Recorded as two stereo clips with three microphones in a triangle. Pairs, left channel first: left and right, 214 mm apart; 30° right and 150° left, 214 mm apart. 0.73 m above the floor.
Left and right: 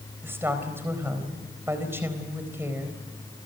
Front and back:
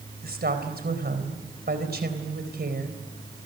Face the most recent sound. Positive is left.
turn(degrees=-170)